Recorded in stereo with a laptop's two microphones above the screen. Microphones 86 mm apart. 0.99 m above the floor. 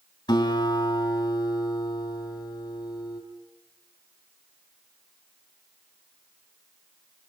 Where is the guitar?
50° left (ahead or behind), 3 m.